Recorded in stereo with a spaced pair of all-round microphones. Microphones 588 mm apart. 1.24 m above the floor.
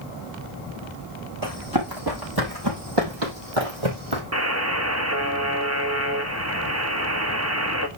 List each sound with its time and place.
1.4 s running footsteps: 35° right (ahead or behind), 3.5 m; by 4.2 s 55° right (ahead or behind), 3 m
4.3 s a buzzer: 25° right (ahead or behind), 1.1 m